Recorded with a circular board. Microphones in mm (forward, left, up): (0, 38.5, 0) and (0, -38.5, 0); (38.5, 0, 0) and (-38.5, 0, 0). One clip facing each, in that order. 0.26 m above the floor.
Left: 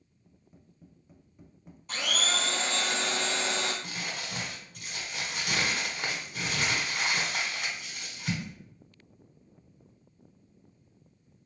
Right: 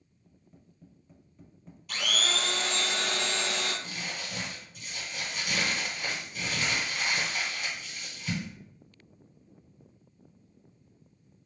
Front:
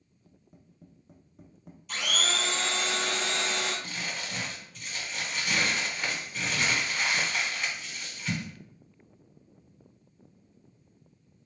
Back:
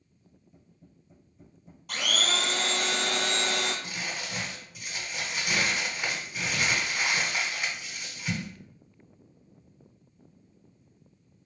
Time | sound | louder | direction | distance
0.3 | tapping | even, front 1 dB | 15° left | 0.9 m
1.9 | a blender | even, back 1 dB | 150° left | 1.0 m
3.8 | crumpling | left 1 dB, back 1 dB | 105° left | 1.1 m